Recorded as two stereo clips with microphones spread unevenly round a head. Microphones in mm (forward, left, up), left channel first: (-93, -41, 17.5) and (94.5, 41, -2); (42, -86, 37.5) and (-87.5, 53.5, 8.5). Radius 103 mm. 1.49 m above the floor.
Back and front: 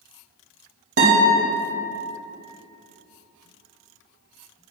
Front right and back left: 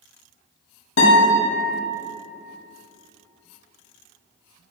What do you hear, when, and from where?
1.0 s a guitar: 20° right, 2 m